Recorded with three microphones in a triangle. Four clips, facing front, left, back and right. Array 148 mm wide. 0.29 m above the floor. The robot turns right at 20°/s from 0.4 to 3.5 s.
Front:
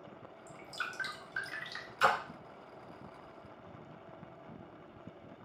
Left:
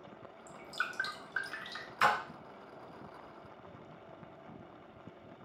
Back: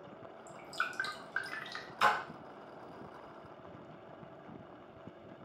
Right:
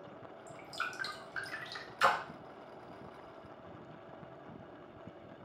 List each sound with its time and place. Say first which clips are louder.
0.5 s dripping: left 2 dB, back 3 dB; 145° left, 0.6 m; by 1.9 s 175° left, 0.6 m
2.0 s a splash: even, even; 120° left, 1.1 m